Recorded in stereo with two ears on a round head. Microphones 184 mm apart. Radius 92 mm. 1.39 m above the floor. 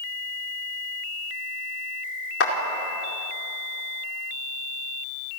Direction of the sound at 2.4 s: 60° left (ahead or behind).